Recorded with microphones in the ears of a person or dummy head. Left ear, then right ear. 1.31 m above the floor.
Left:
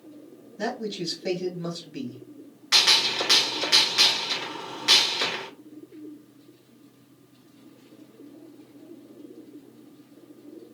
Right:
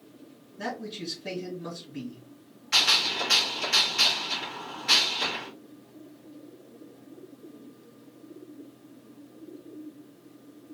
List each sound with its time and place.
0.6 s a man speaking: 60° left (ahead or behind), 1.9 m
2.7 s a gunshot: 70° left (ahead or behind), 2.5 m